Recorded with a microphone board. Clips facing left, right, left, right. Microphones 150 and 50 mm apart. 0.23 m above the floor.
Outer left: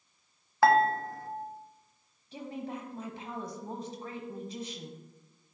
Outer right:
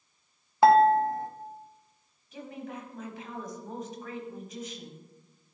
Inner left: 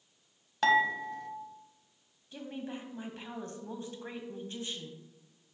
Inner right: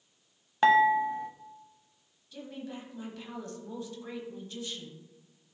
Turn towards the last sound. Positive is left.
turn(degrees=30)  # may be behind; listen again after turning